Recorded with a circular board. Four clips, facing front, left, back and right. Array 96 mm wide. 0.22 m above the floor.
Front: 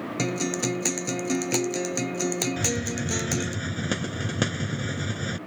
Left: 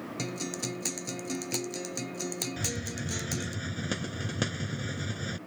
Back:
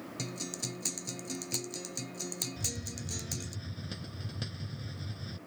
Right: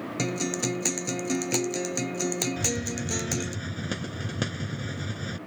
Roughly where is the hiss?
Ahead.